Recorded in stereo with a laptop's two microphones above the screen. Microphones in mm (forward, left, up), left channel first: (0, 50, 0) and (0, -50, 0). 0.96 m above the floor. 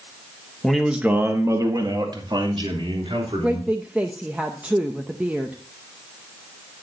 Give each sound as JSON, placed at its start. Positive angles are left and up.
{"t": 0.6, "sound": "a man speaking", "side_deg": 5, "distance_m": 1.3}
{"t": 3.4, "sound": "a woman speaking", "side_deg": -15, "distance_m": 0.7}